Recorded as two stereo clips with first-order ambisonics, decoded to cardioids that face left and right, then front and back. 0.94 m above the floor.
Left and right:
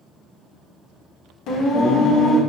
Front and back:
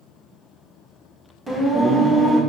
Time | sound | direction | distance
1.5 | singing | 105° left | 1.2 m